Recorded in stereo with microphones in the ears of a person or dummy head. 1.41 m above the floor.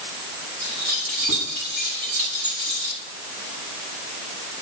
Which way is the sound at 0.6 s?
85° right.